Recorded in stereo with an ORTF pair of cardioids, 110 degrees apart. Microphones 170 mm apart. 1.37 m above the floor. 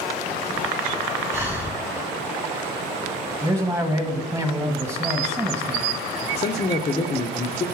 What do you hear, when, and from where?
1.3 s breathing: 10° right, 1.3 m
3.4 s a man speaking: 15° right, 1.3 m
6.4 s a man speaking: 30° left, 0.5 m